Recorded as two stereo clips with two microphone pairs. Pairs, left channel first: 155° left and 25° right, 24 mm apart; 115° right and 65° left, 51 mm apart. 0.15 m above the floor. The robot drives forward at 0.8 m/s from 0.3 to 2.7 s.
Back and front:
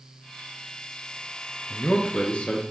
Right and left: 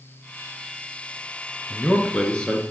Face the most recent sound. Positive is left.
turn(degrees=175)